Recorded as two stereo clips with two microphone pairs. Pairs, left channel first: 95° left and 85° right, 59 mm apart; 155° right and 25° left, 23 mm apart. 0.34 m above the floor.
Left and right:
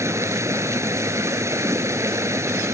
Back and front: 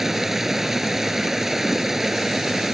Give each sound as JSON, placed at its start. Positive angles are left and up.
{"t": 0.0, "sound": "running water", "azimuth_deg": -50}